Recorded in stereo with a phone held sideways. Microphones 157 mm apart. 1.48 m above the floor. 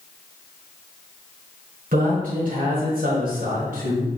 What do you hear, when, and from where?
1.9 s a man speaking: 60° right (ahead or behind), 2 m